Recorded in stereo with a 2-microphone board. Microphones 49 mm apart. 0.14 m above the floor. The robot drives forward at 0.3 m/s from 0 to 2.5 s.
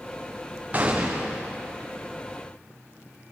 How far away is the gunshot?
About 6 m.